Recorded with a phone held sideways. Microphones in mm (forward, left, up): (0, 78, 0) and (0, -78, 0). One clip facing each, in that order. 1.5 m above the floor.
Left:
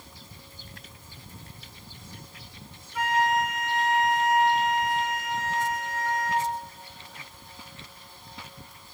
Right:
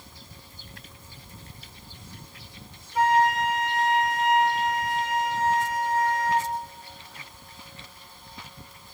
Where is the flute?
30° right (ahead or behind), 1.6 m.